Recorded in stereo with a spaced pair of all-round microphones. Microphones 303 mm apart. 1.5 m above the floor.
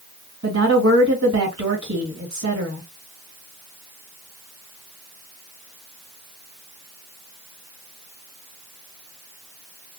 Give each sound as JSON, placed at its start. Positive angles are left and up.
{"t": 0.4, "sound": "a woman speaking", "side_deg": -65, "distance_m": 2.0}